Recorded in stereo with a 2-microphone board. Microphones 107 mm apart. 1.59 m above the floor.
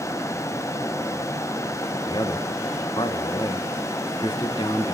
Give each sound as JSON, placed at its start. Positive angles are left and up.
{"t": 2.1, "sound": "a man speaking", "side_deg": 40, "distance_m": 1.2}